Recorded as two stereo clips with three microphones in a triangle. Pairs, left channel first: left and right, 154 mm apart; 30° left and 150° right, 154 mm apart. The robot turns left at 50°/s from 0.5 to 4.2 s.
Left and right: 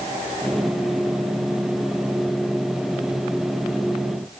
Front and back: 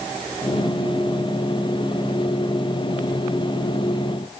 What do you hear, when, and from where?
Only background noise.